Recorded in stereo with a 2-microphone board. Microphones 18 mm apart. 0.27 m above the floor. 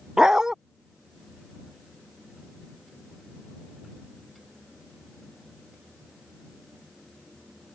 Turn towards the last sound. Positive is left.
turn(degrees=-40)  # may be behind; listen again after turning